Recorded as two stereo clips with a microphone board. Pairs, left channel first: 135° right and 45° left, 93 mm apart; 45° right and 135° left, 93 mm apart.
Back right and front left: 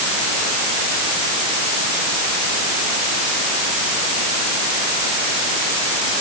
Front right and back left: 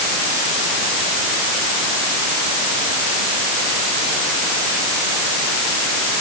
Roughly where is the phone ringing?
No phone ringing in this recording.